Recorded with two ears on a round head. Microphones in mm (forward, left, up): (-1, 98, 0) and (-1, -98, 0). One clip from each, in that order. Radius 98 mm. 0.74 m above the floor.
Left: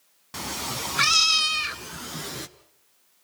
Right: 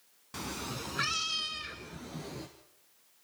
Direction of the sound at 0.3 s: 15° left (ahead or behind).